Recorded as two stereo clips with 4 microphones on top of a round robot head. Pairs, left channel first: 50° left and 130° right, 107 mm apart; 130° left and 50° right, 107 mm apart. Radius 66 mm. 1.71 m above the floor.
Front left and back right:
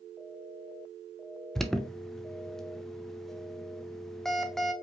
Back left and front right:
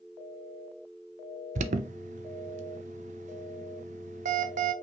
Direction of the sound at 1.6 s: 35° right.